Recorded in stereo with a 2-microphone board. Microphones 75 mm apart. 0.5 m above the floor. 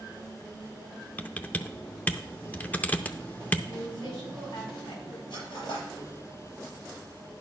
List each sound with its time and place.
1.2 s typing on a keyboard: 20° left (ahead or behind), 0.5 m
3.7 s a woman speaking: 75° left (ahead or behind), 4.5 m
5.3 s cutlery clinking: 75° left (ahead or behind), 5.5 m